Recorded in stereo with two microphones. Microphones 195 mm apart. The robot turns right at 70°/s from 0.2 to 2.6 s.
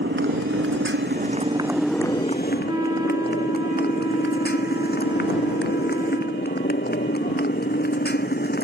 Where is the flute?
15° right (ahead or behind).